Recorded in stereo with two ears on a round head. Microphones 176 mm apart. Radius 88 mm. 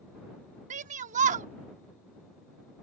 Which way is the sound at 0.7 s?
40° right (ahead or behind).